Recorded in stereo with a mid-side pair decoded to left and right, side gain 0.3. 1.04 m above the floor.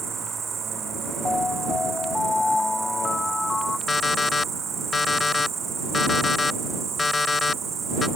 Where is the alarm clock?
45° left.